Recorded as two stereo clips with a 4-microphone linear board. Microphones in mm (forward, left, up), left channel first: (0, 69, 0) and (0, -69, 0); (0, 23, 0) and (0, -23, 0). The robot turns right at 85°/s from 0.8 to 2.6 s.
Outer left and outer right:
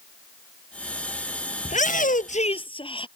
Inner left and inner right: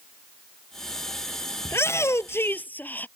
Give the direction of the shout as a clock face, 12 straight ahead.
10 o'clock.